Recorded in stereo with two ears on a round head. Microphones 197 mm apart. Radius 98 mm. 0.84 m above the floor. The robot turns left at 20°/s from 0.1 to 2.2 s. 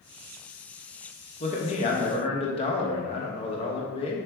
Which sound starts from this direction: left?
A man speaking, at 1.4 s.